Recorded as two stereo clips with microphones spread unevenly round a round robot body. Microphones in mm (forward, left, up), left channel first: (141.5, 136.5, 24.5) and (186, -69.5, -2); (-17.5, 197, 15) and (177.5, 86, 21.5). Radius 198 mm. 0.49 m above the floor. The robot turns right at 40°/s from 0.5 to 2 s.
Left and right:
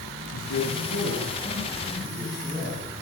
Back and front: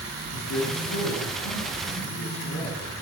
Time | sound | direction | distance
0.3 | a man speaking | 140° left | 9 m